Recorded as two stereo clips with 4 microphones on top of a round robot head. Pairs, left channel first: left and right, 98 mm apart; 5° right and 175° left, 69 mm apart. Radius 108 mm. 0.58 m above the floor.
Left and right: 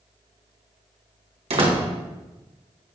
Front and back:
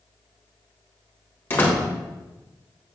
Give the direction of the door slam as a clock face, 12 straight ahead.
2 o'clock.